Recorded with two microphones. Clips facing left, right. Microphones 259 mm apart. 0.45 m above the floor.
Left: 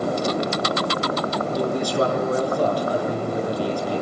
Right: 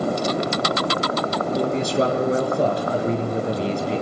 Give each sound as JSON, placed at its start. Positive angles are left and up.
{"t": 1.6, "sound": "a man speaking", "side_deg": -25, "distance_m": 6.0}